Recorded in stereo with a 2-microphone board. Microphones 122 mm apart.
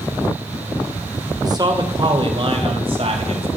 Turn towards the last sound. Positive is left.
turn(degrees=-55)  # may be behind; listen again after turning